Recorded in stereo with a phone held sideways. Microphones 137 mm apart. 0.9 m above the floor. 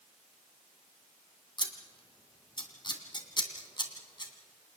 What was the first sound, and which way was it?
Scissors, 35° left (ahead or behind).